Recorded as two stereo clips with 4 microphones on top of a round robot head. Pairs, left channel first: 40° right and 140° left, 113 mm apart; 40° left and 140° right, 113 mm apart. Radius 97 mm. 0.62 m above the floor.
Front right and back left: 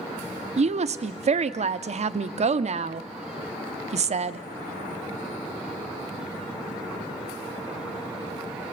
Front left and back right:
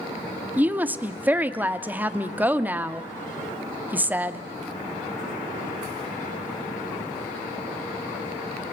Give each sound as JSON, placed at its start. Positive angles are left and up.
{"t": 0.6, "sound": "a woman speaking", "azimuth_deg": 145, "distance_m": 1.0}